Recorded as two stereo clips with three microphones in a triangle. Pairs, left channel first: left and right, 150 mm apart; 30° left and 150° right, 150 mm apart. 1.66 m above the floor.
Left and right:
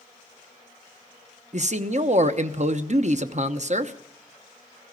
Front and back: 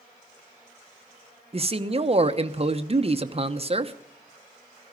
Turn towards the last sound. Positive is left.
turn(degrees=-110)